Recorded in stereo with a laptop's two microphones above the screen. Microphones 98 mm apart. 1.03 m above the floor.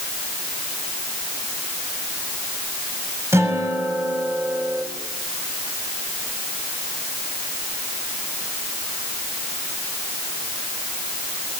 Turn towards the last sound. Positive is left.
turn(degrees=-25)  # may be behind; listen again after turning